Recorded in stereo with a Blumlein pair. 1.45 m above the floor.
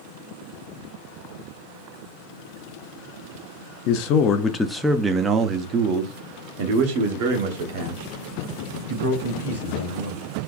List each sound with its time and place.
3.9 s a man speaking: 40° left, 0.8 m; by 10.2 s 65° right, 3 m